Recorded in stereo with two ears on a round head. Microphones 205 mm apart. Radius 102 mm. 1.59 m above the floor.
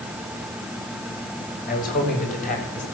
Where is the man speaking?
40° left (ahead or behind), 6.5 m; by 2.8 s 35° left (ahead or behind), 8 m.